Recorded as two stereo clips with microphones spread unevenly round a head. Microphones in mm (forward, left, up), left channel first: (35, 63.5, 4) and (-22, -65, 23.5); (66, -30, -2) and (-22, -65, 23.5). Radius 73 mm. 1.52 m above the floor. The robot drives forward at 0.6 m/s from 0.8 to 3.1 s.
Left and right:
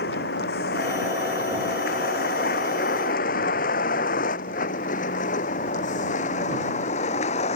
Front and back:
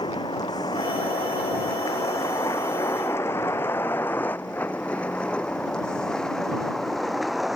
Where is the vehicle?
85° left; by 7.6 s 115° left.